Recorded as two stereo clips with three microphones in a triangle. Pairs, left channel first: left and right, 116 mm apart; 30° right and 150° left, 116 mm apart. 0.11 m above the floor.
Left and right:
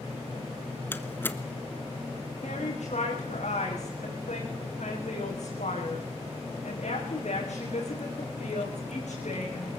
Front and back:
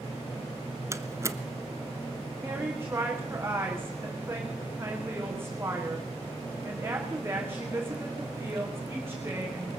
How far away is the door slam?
About 1.2 m.